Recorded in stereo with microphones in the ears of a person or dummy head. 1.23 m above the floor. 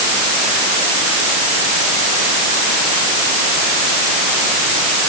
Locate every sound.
Only background noise.